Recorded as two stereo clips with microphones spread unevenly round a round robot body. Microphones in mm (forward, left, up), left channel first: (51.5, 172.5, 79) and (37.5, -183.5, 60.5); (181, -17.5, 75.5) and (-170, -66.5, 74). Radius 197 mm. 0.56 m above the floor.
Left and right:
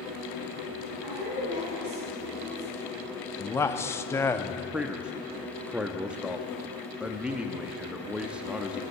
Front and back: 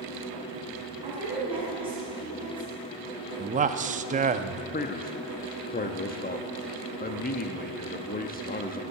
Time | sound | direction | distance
1.0 | a woman speaking | 95° right | 6 m
3.4 | a man speaking | 165° left | 0.6 m
4.7 | a man speaking | 15° right | 0.8 m